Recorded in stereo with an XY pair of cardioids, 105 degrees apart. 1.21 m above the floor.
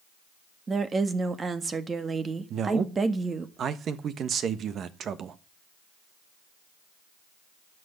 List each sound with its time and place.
0.7 s a woman speaking: 30° right, 1.6 m
2.5 s a man speaking: 60° right, 1.4 m